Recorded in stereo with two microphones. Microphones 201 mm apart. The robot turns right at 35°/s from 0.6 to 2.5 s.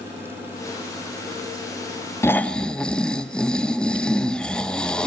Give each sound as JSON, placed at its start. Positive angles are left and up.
{"t": 2.2, "sound": "snoring", "side_deg": 15, "distance_m": 0.5}